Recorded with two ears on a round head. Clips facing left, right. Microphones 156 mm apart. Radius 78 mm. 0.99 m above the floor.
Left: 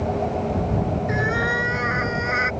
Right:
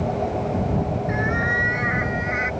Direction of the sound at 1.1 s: 35° left (ahead or behind).